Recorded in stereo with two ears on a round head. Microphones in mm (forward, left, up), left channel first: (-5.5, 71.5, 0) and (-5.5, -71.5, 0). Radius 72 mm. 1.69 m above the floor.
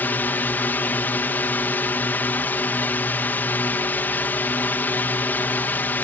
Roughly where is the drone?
Centre.